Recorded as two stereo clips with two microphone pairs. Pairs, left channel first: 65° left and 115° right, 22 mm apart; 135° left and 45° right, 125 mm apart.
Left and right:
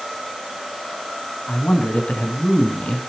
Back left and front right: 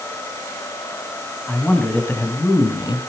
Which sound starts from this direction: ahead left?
A man speaking, at 1.5 s.